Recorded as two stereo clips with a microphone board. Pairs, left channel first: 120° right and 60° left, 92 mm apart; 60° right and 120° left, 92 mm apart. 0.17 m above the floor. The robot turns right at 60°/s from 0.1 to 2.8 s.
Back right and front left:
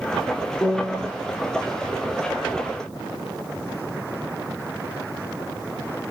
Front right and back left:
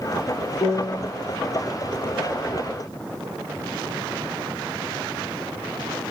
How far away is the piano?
About 0.8 m.